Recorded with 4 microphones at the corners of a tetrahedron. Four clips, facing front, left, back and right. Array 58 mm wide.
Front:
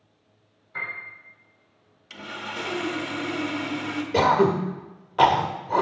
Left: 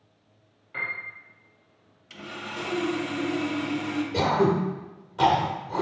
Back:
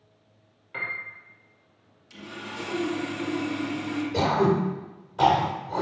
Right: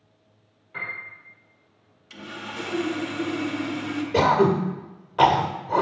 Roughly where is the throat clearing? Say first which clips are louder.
Right 4 dB, front 4 dB; ahead right.